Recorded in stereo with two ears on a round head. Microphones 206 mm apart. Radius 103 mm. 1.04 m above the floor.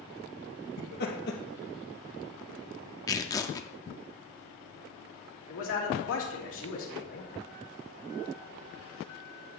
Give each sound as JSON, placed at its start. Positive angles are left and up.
{"t": 0.8, "sound": "laughter", "side_deg": 45, "distance_m": 1.4}
{"t": 3.1, "sound": "tearing paper", "side_deg": 15, "distance_m": 0.6}
{"t": 5.5, "sound": "a man speaking", "side_deg": 60, "distance_m": 2.5}